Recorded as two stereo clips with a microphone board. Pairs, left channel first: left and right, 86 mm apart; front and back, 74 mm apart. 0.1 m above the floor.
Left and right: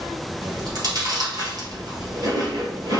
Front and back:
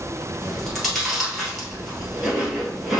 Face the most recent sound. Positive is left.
turn(degrees=-90)